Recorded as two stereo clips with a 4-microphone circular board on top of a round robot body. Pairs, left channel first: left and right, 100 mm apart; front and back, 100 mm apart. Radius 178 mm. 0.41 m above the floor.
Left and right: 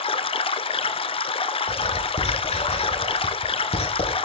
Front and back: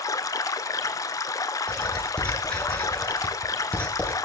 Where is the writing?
75° left, 8.5 m.